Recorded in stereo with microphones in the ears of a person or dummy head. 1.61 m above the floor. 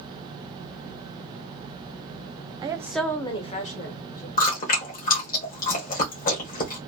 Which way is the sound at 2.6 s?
30° right (ahead or behind).